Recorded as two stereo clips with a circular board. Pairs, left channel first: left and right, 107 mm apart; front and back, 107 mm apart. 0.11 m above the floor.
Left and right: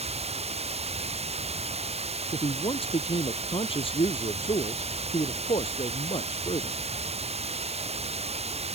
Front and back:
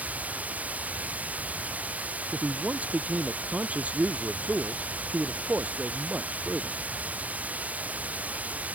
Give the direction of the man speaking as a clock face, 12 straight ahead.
9 o'clock.